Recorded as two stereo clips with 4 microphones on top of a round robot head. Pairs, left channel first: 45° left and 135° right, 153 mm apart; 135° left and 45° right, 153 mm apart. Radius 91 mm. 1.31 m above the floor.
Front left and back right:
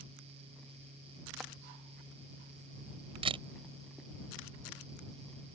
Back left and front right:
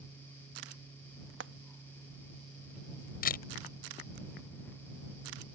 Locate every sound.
1.4 s frying: 45° right
3.2 s a camera shutter: 170° left